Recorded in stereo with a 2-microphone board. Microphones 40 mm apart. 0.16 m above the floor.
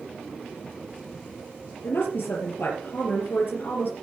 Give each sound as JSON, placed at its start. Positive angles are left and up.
{"t": 1.8, "sound": "a woman speaking", "side_deg": 65, "distance_m": 4.0}